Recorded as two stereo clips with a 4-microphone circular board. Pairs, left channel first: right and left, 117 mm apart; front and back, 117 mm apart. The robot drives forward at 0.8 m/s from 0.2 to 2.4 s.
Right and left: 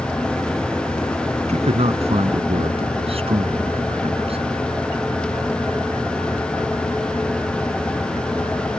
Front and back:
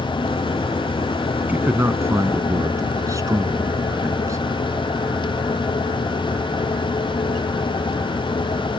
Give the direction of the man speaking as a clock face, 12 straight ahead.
8 o'clock.